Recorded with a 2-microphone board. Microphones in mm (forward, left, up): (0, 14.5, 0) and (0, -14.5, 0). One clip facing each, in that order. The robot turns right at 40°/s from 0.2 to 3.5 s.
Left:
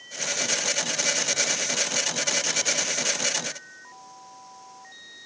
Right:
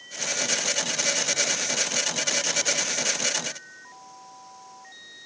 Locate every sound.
Only background noise.